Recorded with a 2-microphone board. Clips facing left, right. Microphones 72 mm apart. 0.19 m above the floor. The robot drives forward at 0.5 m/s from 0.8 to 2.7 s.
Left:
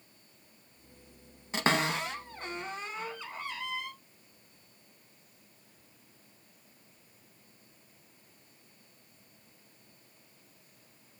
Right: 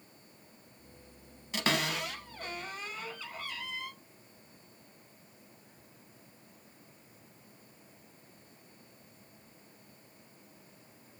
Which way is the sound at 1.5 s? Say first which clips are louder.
Left 3 dB; 30° left (ahead or behind).